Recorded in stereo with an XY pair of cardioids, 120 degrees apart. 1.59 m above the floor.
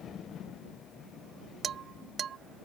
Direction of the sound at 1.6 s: 50° right.